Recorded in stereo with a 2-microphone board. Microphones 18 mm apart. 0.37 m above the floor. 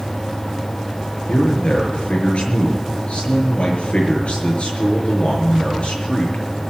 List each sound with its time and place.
1.3 s a man speaking: 65° left (ahead or behind), 5 m